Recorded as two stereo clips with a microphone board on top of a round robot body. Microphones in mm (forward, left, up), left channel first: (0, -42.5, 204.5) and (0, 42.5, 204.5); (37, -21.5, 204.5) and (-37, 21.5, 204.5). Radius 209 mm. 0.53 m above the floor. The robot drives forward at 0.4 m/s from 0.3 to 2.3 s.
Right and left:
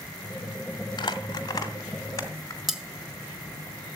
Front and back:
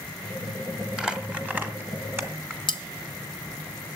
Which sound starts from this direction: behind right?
Crumpling, at 1.0 s.